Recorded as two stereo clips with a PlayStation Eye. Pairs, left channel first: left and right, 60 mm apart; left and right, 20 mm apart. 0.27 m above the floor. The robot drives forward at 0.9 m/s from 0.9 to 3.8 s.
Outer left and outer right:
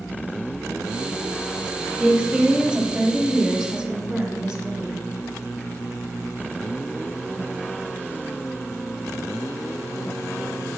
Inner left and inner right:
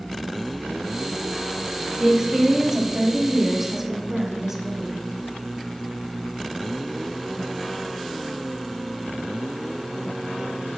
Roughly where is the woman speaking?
Centre.